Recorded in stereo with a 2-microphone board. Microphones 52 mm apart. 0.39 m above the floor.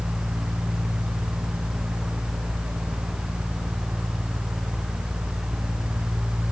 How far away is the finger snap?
I don't hear a finger snap.